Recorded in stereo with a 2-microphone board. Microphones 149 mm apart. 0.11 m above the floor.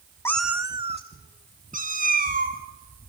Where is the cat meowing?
15° left (ahead or behind), 0.8 m; by 2.6 s 70° right (ahead or behind), 3.5 m.